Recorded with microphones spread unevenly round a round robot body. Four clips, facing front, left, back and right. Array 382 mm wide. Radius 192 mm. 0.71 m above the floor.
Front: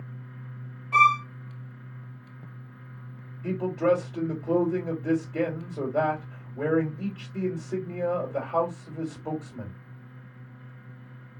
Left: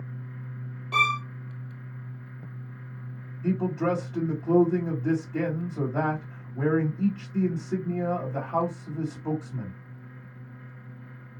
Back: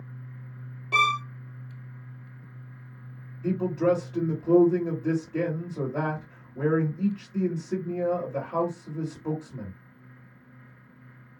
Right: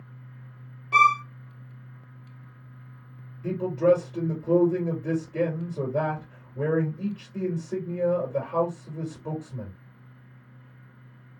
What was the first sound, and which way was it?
A violin, 170° left.